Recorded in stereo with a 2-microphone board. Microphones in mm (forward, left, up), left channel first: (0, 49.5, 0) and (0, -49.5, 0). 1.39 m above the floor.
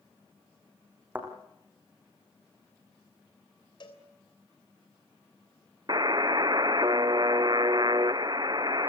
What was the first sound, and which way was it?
A thud, 20° right (ahead or behind).